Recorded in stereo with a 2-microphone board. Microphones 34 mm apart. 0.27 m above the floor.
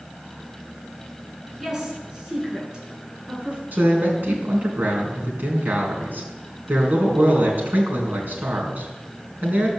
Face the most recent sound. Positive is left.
turn(degrees=-55)  # may be behind; listen again after turning